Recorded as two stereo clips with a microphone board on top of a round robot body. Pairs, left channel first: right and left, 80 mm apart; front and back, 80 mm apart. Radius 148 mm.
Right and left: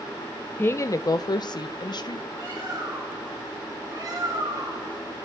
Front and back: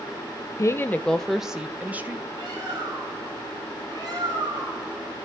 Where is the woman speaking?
30° right, 0.7 m; by 2.2 s 115° right, 1.3 m.